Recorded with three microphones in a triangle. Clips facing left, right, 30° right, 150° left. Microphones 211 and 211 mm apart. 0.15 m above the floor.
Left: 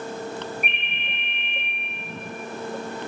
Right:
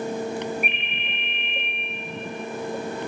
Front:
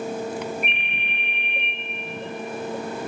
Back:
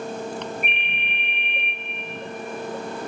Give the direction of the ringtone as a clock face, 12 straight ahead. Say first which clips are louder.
Right 3 dB, even; 6 o'clock.